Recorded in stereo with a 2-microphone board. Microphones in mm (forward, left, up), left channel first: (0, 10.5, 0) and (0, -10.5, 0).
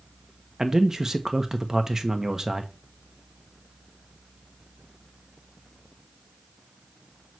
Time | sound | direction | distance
0.6 | a man speaking | 20° right (ahead or behind) | 0.9 m